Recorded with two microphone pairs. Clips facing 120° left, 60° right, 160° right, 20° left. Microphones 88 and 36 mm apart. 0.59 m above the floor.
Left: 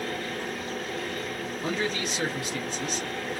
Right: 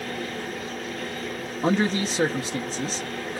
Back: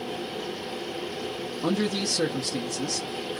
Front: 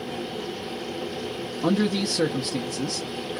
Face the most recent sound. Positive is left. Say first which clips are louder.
# right 8 dB, front 3 dB
turn(degrees=-45)